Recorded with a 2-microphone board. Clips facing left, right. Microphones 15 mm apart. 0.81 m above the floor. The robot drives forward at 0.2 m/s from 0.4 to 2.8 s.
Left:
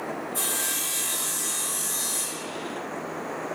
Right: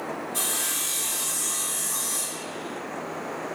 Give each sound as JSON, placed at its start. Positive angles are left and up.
{"t": 0.3, "sound": "sawing", "side_deg": -50, "distance_m": 1.6}